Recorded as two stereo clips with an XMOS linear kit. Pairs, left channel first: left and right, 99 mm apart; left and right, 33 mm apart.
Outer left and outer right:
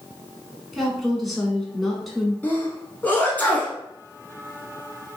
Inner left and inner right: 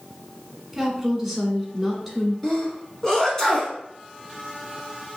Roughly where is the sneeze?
Centre.